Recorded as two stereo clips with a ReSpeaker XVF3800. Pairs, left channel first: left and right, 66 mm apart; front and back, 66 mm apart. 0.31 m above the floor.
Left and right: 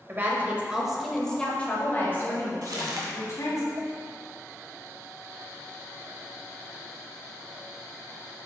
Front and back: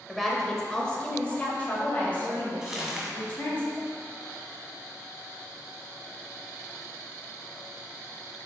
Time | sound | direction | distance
0.1 | a woman speaking | 90° right | 1.1 m
2.6 | crumpling | 100° right | 1.3 m